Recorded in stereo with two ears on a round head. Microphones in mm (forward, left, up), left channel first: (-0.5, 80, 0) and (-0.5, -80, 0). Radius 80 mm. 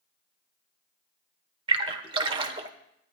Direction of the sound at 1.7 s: 30° right (ahead or behind).